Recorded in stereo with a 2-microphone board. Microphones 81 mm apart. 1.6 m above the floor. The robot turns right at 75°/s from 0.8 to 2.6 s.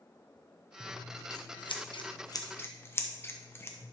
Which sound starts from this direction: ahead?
Scissors, at 0.8 s.